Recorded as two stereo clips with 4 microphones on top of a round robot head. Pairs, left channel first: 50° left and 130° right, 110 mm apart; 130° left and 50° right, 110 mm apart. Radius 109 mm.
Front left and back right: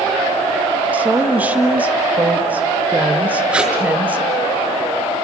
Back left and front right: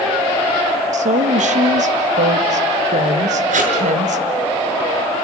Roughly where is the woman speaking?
Ahead right.